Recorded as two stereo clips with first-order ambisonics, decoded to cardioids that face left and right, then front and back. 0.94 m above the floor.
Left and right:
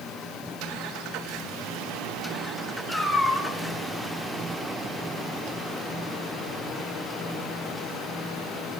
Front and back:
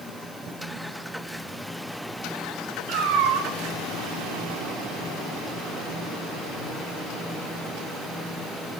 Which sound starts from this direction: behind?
A cat meowing, at 2.9 s.